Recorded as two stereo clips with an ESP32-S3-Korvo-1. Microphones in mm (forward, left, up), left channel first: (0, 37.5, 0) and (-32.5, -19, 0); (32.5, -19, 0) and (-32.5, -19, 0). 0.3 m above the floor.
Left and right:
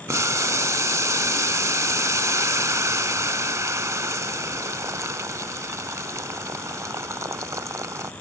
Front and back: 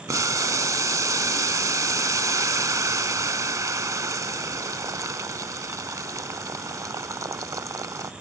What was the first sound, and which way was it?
Boiling, 155° right.